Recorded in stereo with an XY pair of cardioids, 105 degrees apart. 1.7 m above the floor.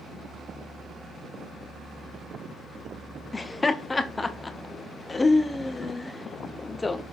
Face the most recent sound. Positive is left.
turn(degrees=25)